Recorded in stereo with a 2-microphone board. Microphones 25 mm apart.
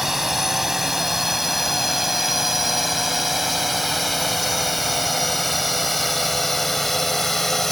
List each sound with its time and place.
0.0 s a drone: 5° right (ahead or behind); by 7.7 s 15° left (ahead or behind)